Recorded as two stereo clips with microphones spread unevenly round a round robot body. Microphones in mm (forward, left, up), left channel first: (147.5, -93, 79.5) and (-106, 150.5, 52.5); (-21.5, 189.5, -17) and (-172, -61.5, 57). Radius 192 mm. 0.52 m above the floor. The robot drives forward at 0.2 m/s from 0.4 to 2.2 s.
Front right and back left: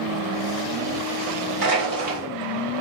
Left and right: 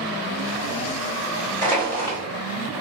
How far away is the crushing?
About 1.7 m.